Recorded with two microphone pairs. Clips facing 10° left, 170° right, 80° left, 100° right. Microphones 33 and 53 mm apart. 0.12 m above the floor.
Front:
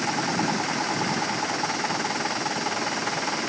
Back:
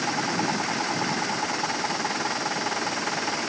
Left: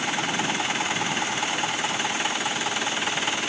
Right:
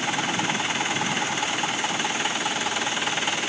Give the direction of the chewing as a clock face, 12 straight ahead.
No chewing in this recording.